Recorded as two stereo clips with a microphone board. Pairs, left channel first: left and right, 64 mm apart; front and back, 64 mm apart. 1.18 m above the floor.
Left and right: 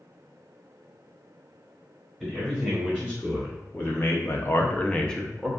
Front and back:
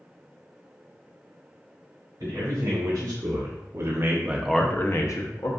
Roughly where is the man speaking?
Behind.